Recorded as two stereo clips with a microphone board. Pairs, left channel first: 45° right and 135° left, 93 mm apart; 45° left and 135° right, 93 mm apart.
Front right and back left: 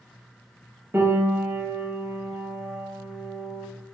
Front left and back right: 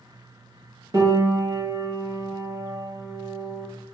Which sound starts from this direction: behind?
A piano, at 0.9 s.